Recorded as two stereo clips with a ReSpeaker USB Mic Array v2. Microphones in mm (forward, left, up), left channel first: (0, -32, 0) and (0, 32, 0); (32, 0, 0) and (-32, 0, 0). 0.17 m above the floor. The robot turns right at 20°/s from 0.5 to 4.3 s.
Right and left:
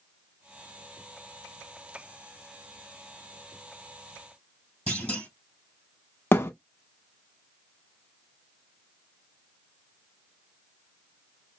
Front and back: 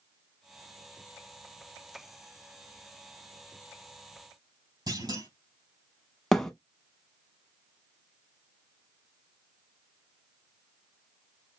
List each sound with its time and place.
4.9 s a clunk: 170° right, 3.5 m
6.3 s a thud: 75° right, 0.7 m